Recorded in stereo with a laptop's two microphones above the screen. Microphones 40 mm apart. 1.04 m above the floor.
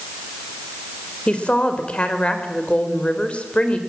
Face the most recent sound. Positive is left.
turn(degrees=30)  # may be behind; listen again after turning